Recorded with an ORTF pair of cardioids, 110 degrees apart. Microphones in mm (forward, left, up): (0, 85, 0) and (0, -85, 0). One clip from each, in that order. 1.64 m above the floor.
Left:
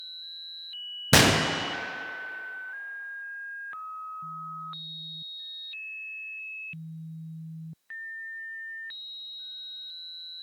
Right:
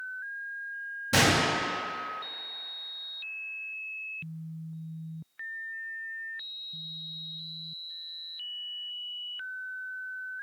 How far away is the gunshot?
About 0.7 m.